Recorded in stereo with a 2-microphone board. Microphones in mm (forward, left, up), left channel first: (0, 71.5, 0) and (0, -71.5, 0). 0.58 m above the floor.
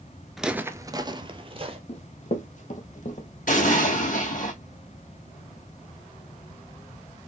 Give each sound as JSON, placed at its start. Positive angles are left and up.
{"t": 0.4, "sound": "footsteps", "side_deg": 0, "distance_m": 0.5}
{"t": 1.9, "sound": "running footsteps", "side_deg": 50, "distance_m": 1.0}
{"t": 3.5, "sound": "an explosion", "side_deg": 70, "distance_m": 2.0}